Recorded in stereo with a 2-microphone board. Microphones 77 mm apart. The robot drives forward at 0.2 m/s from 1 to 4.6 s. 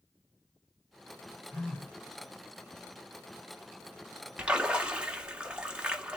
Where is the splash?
15° right (ahead or behind), 1.0 m.